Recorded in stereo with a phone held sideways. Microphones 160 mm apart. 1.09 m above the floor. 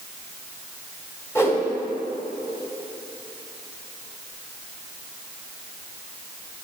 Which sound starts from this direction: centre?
A whoosh, at 1.4 s.